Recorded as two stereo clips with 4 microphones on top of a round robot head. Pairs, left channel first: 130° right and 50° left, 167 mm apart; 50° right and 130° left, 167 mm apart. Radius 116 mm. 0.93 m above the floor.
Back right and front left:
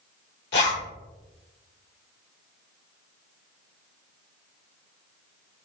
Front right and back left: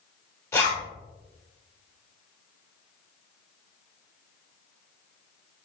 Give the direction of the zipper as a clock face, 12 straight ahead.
4 o'clock.